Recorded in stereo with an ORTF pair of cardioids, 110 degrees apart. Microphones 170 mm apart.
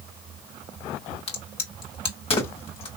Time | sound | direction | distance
1.3 | a crack | 35° left | 1.9 m